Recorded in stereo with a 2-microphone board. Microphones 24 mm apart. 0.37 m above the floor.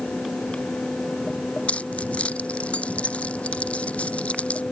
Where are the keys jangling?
85° left.